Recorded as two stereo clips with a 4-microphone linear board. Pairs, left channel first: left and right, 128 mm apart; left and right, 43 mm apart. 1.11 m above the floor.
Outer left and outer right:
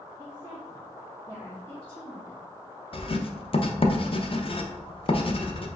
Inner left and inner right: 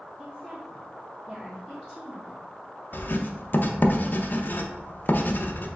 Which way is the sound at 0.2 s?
30° right (ahead or behind).